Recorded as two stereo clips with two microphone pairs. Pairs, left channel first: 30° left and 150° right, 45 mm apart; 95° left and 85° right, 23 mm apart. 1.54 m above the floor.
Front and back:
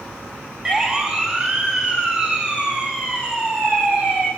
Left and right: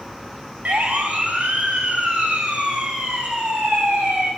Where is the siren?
75° right, 5 m; by 4.3 s 85° right, 8 m.